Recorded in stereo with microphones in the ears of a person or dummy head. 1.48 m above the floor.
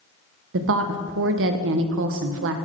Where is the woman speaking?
65° right (ahead or behind), 0.7 m.